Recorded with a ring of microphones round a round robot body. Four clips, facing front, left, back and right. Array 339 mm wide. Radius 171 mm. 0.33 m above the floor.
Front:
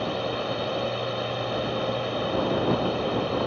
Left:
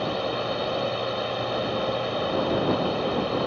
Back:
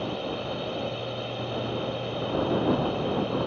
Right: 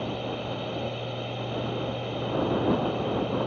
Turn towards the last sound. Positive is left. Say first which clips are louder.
# left 5 dB, front 3 dB
turn(degrees=65)